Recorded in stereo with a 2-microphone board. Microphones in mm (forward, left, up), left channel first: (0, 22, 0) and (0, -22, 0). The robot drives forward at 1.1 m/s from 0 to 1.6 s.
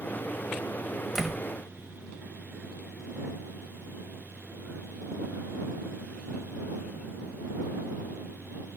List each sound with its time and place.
1.1 s a door slam: 10° right (ahead or behind), 1.6 m